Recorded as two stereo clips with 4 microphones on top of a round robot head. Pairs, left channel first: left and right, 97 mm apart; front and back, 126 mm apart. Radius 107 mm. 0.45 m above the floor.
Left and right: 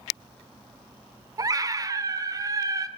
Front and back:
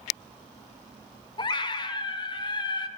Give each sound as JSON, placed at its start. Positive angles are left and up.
{"t": 1.4, "sound": "a scream", "azimuth_deg": -45, "distance_m": 1.5}